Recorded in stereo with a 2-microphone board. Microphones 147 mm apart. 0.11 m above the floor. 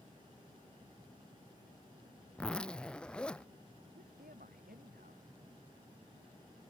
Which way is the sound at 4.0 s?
85° right.